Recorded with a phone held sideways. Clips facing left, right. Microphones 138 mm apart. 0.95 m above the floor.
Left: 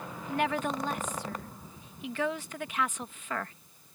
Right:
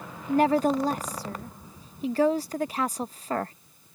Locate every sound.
0.3 s a woman speaking: 40° right (ahead or behind)